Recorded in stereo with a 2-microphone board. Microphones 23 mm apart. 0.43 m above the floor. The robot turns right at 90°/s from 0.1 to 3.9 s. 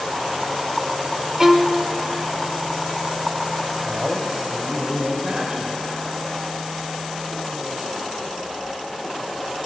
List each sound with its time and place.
1.4 s a violin: 155° right, 0.6 m; by 1.9 s 110° right, 0.6 m
3.9 s a man speaking: 50° right (ahead or behind), 2 m; by 5.7 s 45° right (ahead or behind), 2 m